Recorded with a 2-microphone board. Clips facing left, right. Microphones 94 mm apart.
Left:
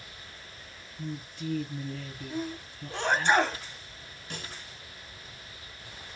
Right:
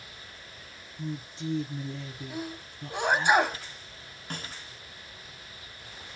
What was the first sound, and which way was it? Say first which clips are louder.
A woman speaking: right 1 dB; 25° right (ahead or behind).